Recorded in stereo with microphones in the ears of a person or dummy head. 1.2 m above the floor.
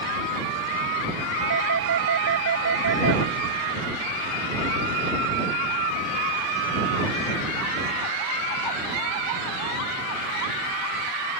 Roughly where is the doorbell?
Right.